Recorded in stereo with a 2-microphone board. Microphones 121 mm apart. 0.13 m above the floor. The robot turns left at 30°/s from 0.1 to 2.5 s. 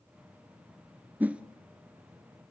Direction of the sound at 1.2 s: 15° right (ahead or behind).